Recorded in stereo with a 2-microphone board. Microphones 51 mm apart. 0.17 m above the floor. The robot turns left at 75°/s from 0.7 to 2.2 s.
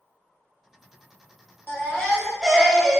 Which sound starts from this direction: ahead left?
A baby crying, at 1.7 s.